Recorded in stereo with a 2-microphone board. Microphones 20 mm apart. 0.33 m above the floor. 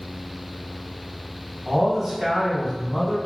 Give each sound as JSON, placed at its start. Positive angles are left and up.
{"t": 1.6, "sound": "a man speaking", "side_deg": -30, "distance_m": 1.8}